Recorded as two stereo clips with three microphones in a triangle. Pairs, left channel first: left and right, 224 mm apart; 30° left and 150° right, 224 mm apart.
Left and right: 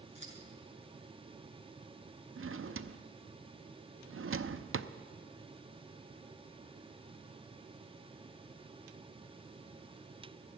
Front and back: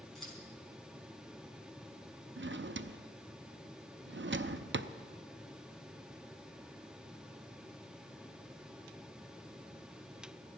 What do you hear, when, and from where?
0.1 s scissors: 120° left, 4.5 m
2.4 s a drawer: 115° right, 0.5 m